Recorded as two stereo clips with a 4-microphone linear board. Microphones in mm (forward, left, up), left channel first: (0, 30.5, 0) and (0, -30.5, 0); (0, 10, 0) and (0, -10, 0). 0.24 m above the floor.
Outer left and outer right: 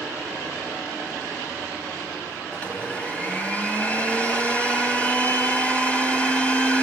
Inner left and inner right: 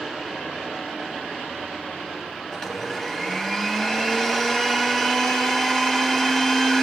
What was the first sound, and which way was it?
A blender, 25° left (ahead or behind).